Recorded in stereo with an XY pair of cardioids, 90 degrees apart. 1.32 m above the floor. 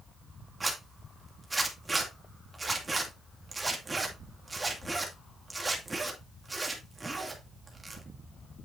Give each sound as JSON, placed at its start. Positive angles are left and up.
{"t": 0.6, "sound": "a zipper", "azimuth_deg": -25, "distance_m": 2.5}